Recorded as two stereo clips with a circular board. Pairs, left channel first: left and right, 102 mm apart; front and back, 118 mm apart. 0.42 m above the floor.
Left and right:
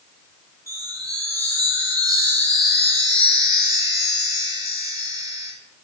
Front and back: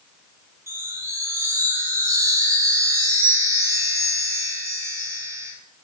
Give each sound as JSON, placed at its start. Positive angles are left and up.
{"t": 0.7, "sound": "a chime", "azimuth_deg": -125, "distance_m": 0.7}